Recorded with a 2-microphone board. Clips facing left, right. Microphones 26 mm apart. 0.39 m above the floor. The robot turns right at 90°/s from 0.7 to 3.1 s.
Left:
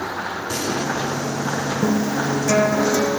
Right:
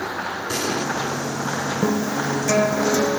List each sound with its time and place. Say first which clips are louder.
0.5 s an explosion: even; 10° right (ahead or behind), 2 m; by 0.9 s 5° left (ahead or behind), 2 m
1.8 s a guitar: left 2 dB; 60° right, 1.2 m; by 3.2 s 55° left, 1.2 m